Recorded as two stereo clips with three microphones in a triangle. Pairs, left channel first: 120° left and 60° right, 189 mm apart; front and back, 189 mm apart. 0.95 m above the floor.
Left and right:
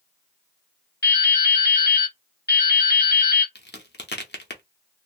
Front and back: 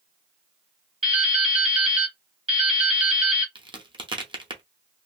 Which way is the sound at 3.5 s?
120° left.